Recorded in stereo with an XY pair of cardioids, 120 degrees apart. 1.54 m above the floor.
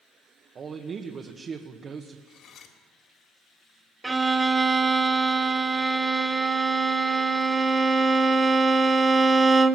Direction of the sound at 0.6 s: 40° right.